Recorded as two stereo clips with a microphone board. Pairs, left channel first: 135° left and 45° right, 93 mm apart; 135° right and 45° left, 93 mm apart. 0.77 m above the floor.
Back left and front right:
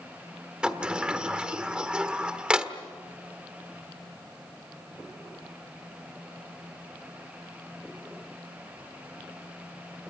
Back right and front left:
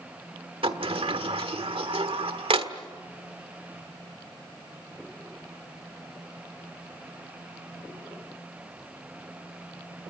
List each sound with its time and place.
0.6 s a sliding door: 35° left, 1.2 m